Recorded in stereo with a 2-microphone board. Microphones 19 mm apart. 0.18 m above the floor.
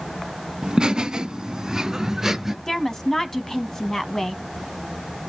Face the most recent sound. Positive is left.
turn(degrees=25)  # may be behind; listen again after turning